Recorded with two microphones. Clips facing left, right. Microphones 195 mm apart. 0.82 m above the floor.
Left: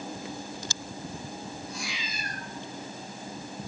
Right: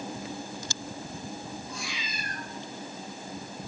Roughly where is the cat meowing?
Left.